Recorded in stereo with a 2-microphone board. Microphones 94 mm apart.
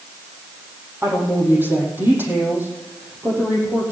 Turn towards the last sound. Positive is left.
turn(degrees=-20)  # may be behind; listen again after turning